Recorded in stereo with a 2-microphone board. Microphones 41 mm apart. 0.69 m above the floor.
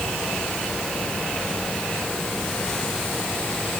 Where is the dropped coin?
No dropped coin in this recording.